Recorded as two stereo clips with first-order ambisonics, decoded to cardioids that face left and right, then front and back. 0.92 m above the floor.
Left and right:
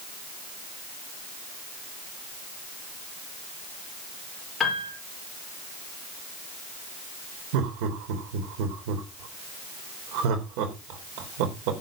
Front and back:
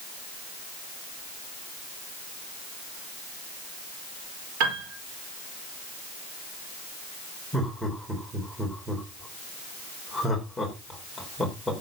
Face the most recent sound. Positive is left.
turn(degrees=-85)